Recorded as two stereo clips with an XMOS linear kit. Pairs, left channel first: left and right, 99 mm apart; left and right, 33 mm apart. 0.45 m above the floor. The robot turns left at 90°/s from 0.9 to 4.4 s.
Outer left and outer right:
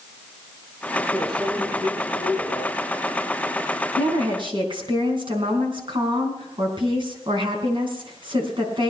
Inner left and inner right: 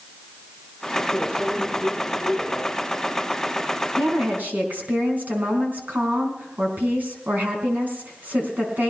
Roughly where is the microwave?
Behind.